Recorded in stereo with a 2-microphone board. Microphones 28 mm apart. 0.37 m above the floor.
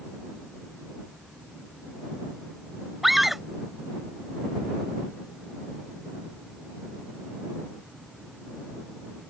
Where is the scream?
5° right (ahead or behind).